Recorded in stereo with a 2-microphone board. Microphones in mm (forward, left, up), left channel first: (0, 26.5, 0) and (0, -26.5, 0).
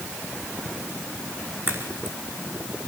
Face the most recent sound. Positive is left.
turn(degrees=-45)  # may be behind; listen again after turning